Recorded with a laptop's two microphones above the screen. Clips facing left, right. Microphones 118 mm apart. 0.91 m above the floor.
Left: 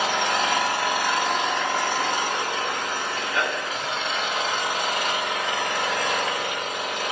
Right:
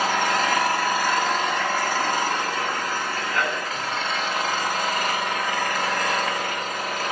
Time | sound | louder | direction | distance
0.0 | an engine running | right 1 dB | 20° left (ahead or behind) | 5.5 m